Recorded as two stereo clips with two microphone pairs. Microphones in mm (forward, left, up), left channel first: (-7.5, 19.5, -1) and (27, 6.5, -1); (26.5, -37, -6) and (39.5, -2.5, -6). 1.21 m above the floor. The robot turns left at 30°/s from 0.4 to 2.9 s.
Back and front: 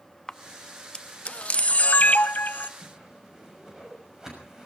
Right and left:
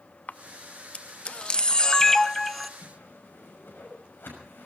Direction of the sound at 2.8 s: 95° right.